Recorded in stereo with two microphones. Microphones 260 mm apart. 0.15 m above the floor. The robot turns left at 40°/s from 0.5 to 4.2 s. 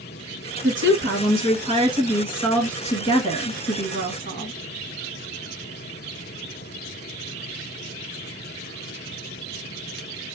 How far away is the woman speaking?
About 1.7 m.